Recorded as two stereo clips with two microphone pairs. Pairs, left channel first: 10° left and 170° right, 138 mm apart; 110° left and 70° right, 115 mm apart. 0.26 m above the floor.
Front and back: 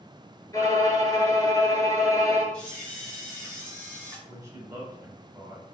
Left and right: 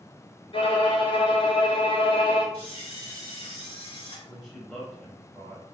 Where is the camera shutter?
90° left, 1.7 m.